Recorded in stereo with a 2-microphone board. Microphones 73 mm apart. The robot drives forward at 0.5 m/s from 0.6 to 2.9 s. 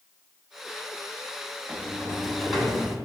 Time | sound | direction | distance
1.7 | a sliding door | 5° right (ahead or behind) | 1.9 m